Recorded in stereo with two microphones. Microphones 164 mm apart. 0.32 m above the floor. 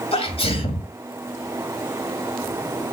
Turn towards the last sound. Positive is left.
turn(degrees=35)  # may be behind; listen again after turning